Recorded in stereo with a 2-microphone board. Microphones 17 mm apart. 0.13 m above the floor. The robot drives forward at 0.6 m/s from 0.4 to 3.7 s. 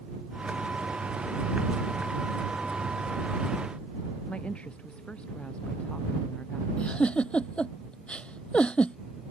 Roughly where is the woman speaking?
Left.